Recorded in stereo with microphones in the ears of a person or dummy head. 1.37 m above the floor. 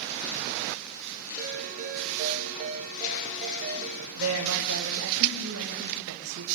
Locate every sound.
1.4 s a ringtone: 45° right (ahead or behind), 8.5 m
4.2 s a woman speaking: 70° right (ahead or behind), 7.5 m